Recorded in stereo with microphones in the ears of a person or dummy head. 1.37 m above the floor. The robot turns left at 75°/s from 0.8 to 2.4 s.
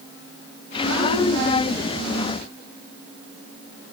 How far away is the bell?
No bell in this recording.